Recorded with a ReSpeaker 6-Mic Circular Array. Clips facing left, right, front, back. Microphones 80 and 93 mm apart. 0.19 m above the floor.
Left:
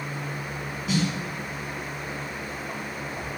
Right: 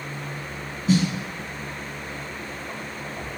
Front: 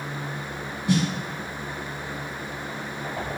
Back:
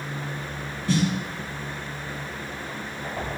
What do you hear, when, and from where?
0.9 s a snare drum: 65° right, 1.8 m